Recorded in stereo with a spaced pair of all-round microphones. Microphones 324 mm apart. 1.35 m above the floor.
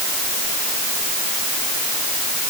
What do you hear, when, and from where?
Only background noise.